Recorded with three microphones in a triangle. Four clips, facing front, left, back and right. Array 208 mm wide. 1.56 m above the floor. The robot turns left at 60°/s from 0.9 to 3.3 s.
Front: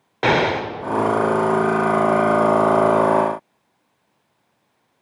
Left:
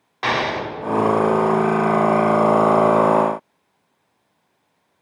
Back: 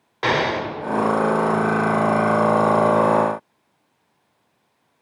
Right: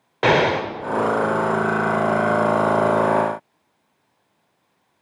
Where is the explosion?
60° right, 0.7 m.